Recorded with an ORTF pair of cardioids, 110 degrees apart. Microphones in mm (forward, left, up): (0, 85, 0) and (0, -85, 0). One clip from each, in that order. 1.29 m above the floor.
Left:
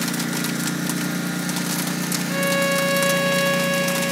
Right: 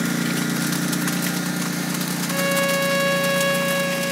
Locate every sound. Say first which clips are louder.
0.0 s a lawn mower: right 1 dB; 15° right; by 4.1 s 15° left
2.3 s a violin: even; straight ahead